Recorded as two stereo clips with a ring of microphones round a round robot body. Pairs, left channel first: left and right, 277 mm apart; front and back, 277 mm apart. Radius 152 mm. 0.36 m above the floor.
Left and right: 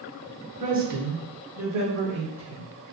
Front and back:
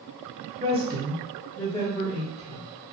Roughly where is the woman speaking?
Behind right.